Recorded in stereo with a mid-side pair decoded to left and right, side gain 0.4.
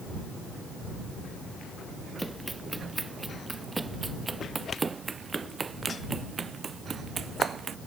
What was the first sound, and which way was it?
Running footsteps, 15° right.